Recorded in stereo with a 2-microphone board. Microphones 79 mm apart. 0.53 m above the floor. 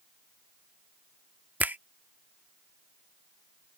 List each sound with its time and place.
1.6 s a finger snap: 20° right (ahead or behind)